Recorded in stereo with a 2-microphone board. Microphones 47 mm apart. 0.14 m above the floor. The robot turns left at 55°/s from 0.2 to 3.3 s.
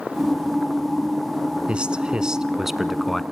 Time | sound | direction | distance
1.7 | a man speaking | 25° right (ahead or behind) | 1.2 m